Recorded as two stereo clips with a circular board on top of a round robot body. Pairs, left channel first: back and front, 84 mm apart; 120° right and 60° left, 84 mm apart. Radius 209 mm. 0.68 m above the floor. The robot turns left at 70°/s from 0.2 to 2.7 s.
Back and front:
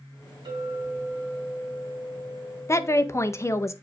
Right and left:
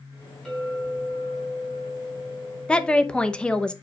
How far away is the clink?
About 4.5 m.